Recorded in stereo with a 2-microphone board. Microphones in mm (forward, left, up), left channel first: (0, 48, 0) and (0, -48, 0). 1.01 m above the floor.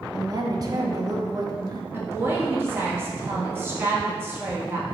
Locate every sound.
0.1 s a woman speaking: 40° right (ahead or behind), 1.0 m
1.9 s a woman speaking: 25° right (ahead or behind), 1.7 m